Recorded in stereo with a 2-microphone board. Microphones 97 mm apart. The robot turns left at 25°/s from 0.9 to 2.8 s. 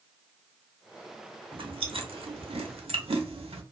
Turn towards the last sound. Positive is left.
turn(degrees=-80)